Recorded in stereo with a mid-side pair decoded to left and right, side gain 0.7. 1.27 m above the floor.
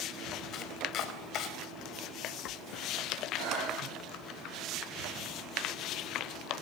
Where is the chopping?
45° left, 4 m.